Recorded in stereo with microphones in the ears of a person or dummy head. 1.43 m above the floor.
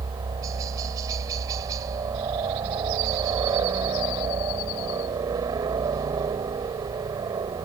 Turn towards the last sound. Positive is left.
turn(degrees=-20)  # may be behind; listen again after turning